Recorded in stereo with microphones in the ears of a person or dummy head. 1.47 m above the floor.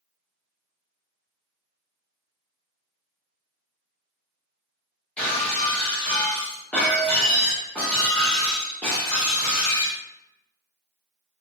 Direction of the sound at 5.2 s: 5° left (ahead or behind).